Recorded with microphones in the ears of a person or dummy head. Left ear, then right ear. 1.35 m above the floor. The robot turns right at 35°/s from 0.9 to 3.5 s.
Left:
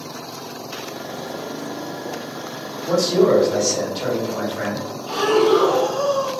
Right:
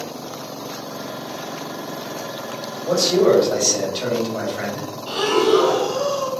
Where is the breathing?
50° right (ahead or behind), 1.4 m.